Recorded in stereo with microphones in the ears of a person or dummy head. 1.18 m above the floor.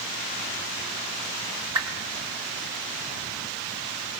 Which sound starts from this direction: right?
A whoosh, at 1.8 s.